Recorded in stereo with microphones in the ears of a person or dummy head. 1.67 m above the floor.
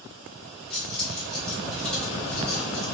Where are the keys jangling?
5° left (ahead or behind), 1.7 m.